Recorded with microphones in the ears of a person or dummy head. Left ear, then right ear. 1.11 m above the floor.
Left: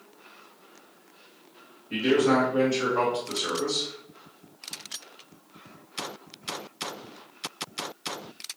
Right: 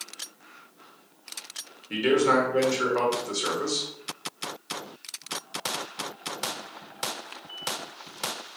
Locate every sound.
1.9 s a man speaking: 70° right (ahead or behind), 1.6 m